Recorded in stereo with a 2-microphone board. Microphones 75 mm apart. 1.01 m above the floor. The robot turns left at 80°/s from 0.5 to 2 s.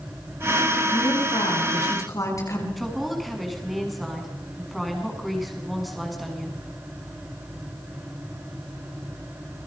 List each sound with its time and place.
0.9 s a woman speaking: 135° left, 8 m; by 2.7 s 45° left, 8 m
2.8 s a woman speaking: centre (ahead or behind), 8 m